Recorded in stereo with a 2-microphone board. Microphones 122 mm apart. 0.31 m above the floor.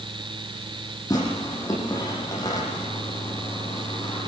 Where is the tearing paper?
25° left (ahead or behind), 7.5 m.